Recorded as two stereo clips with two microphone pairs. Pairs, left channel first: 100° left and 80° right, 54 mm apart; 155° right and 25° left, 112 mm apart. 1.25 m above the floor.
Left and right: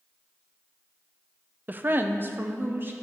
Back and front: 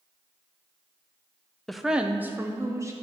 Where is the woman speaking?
65° right, 0.5 m; by 2.9 s 35° right, 1.1 m.